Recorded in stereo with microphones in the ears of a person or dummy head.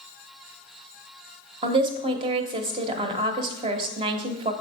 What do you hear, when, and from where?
1.6 s a woman speaking: 25° right (ahead or behind), 0.7 m